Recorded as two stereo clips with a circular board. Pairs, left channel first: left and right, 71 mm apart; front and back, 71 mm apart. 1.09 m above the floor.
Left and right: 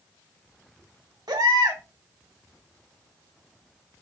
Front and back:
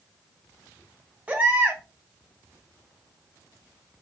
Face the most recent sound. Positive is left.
turn(degrees=-110)